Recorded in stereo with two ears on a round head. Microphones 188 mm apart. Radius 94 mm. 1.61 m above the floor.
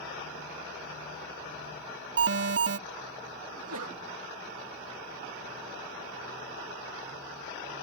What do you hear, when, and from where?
2.2 s an alarm: 60° right (ahead or behind)
3.5 s a sneeze: 80° right